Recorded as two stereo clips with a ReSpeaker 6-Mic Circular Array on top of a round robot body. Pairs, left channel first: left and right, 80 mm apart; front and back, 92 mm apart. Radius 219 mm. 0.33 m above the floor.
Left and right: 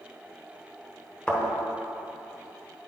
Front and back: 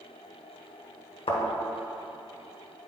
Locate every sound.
1.3 s a thud: 15° left, 1.2 m